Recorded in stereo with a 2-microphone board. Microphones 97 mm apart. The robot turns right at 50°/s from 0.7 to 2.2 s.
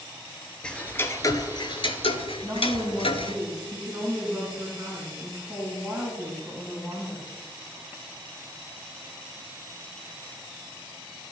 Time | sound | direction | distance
0.6 | ticking | 10° left (ahead or behind) | 0.7 m
2.4 | a woman speaking | 15° right (ahead or behind) | 2 m